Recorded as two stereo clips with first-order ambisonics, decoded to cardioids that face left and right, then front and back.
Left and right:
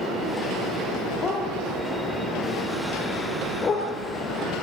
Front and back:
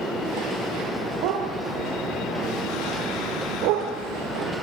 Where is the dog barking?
155° left, 4.5 m.